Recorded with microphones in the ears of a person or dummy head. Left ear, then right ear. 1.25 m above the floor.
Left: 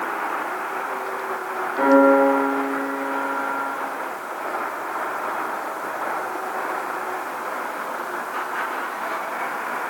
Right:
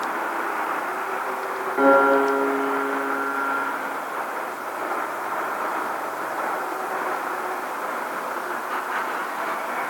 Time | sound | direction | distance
1.8 | a piano | 40° right (ahead or behind) | 2.5 m